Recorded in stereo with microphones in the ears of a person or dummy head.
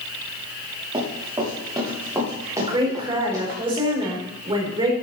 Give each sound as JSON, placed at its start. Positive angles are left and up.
{"t": 0.9, "sound": "running footsteps", "side_deg": -25, "distance_m": 7.0}
{"t": 2.6, "sound": "a woman speaking", "side_deg": -30, "distance_m": 4.5}